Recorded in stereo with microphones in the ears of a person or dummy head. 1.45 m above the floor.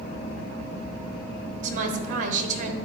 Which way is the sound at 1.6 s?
45° right (ahead or behind).